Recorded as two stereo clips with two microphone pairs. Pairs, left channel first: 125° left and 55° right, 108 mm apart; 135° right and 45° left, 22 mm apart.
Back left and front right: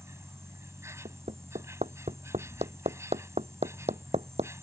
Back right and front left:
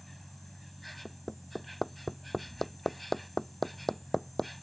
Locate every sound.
0.0 s an insect: 50° right
1.1 s hammering: 55° right